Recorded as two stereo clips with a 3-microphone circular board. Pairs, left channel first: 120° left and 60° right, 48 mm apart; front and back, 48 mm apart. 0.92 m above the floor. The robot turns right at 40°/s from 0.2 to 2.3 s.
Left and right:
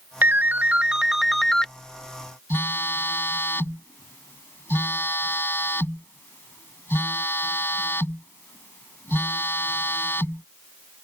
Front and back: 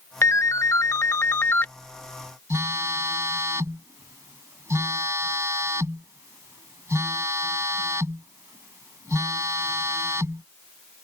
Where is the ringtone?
15° right; by 1.7 s 45° left.